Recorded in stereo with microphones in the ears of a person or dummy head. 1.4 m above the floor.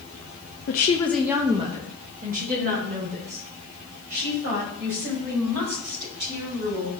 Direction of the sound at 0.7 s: 45° left (ahead or behind).